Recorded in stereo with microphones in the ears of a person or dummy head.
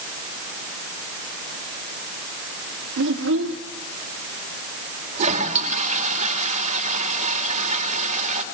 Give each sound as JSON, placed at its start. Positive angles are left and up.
{"t": 3.0, "sound": "a child speaking", "side_deg": -65, "distance_m": 2.5}
{"t": 5.2, "sound": "a toilet flushing", "side_deg": -45, "distance_m": 4.0}